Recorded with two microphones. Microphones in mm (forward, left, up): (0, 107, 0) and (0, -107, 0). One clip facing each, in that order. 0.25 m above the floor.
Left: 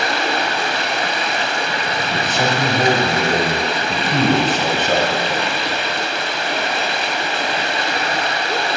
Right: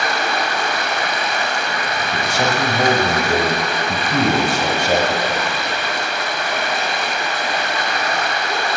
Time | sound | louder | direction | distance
0.0 | running water | left 1 dB | 30° left (ahead or behind) | 0.8 m
2.1 | a man speaking | even | 10° right (ahead or behind) | 1.0 m